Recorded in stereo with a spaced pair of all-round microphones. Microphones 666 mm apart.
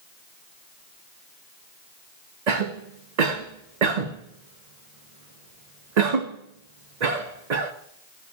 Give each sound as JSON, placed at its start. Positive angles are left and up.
{"t": 2.5, "sound": "a cough", "side_deg": -75, "distance_m": 0.9}